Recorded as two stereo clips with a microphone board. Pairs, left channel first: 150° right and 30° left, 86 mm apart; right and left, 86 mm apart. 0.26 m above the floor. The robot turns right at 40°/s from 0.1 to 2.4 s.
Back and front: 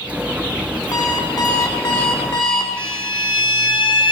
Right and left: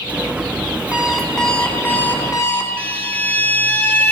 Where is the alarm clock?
170° left, 1.6 m; by 2.7 s 130° right, 1.6 m.